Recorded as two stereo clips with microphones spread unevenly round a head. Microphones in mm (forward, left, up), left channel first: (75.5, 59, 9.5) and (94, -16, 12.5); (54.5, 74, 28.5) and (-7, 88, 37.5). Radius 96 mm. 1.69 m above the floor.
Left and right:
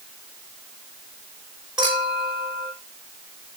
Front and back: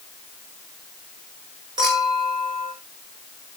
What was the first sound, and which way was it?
A clink, 160° right.